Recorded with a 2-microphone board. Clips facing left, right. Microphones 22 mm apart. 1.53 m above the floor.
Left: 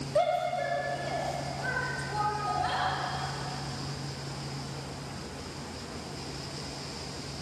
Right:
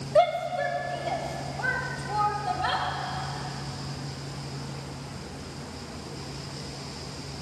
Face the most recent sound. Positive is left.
turn(degrees=-35)  # may be behind; listen again after turning